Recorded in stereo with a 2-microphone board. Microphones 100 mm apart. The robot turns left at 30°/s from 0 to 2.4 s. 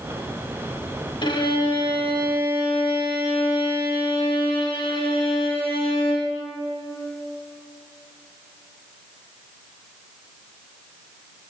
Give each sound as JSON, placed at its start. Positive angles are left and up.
{"t": 1.2, "sound": "a violin", "azimuth_deg": 120, "distance_m": 1.1}